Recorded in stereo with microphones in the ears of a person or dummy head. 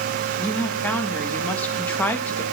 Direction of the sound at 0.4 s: 15° left (ahead or behind).